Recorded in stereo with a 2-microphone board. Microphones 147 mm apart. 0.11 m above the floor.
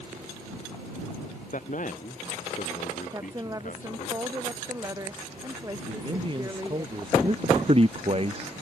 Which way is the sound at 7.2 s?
40° right (ahead or behind).